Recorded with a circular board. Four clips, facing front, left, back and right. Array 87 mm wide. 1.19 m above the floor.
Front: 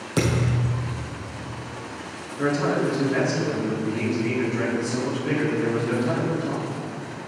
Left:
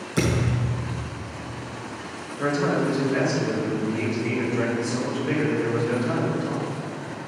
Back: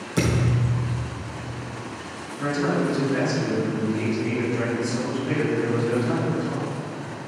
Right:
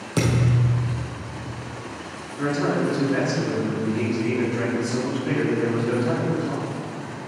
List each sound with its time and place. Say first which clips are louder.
0.2 s a thud: right 2 dB, even; 45° right, 2.5 m
2.4 s a man speaking: even, front 1 dB; 50° right, 3 m